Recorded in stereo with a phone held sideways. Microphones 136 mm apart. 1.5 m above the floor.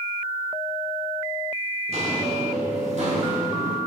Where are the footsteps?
50° right (ahead or behind), 2 m; by 3.8 s 55° right (ahead or behind), 3 m.